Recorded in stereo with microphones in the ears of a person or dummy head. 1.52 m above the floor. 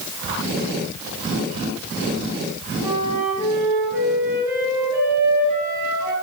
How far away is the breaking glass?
No breaking glass in this recording.